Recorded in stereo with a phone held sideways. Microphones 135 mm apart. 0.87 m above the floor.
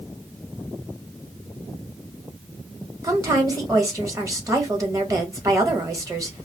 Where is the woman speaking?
25° right (ahead or behind), 1.3 m.